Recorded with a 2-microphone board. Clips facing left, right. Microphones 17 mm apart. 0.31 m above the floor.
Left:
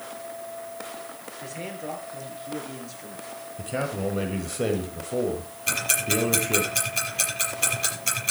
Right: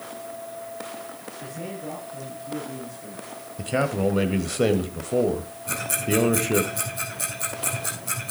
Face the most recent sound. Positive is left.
turn(degrees=80)